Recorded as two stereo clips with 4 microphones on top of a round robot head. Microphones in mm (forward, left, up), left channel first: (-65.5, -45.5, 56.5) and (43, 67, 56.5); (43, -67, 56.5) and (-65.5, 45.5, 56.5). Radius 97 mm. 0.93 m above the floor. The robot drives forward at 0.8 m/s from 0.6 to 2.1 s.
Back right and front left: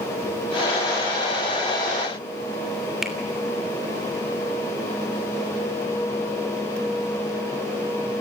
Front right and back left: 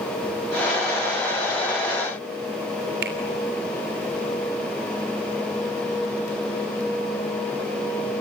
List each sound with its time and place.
3.0 s a finger snap: 135° left, 3 m